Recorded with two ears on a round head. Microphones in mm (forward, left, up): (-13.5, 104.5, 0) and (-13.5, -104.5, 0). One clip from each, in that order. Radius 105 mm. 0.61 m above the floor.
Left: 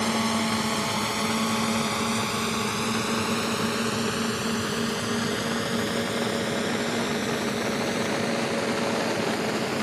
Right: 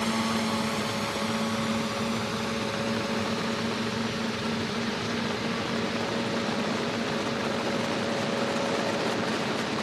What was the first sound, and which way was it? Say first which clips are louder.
A drone: left 2 dB; 15° left (ahead or behind).